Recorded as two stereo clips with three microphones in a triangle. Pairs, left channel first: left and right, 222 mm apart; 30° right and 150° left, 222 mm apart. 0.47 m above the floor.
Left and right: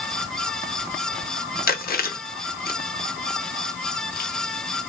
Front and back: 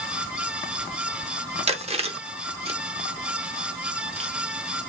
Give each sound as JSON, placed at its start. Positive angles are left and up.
{"t": 1.7, "sound": "chewing", "azimuth_deg": 105, "distance_m": 0.7}